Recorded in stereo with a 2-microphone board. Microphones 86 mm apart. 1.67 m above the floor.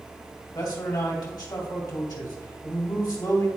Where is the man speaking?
50° left (ahead or behind), 2 m.